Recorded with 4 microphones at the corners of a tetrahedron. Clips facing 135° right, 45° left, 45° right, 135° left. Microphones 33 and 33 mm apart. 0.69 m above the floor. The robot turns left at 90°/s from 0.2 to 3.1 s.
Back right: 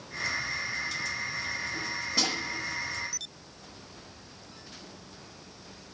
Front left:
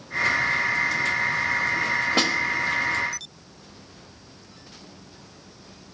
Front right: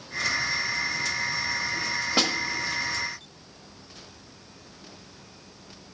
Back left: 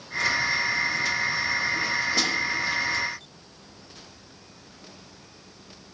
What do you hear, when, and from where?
2.2 s a snare drum: 10° left, 1.1 m; by 2.3 s 5° right, 1.1 m